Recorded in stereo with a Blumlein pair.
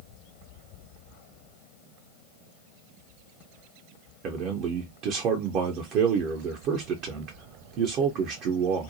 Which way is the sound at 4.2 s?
35° right.